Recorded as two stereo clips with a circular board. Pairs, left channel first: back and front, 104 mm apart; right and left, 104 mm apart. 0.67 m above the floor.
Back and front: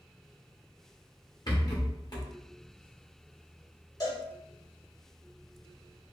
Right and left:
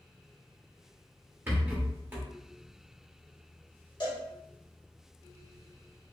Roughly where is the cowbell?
Behind right.